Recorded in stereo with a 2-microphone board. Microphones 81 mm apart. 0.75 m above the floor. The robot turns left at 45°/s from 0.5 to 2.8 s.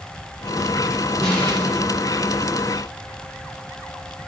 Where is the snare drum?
5° left (ahead or behind), 8 m; by 1.7 s 30° left (ahead or behind), 8 m.